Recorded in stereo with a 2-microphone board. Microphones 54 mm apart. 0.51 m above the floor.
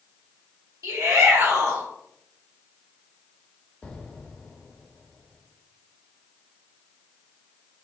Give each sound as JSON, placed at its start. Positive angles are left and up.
{"t": 0.8, "sound": "a shout", "side_deg": -70, "distance_m": 2.0}
{"t": 3.8, "sound": "an explosion", "side_deg": 10, "distance_m": 1.0}